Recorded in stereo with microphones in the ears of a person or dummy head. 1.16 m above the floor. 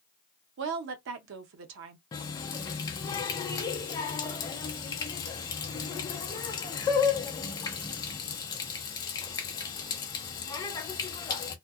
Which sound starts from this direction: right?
A woman speaking, at 0.6 s.